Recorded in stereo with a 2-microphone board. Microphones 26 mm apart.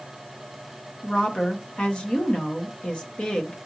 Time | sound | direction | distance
1.0 | a woman speaking | 40° left (ahead or behind) | 1.1 m